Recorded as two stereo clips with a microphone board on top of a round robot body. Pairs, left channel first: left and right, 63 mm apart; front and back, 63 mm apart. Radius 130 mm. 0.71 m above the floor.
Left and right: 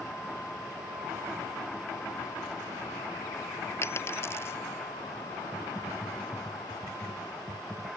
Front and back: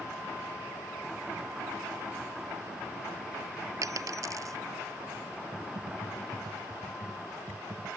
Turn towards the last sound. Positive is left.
turn(degrees=-175)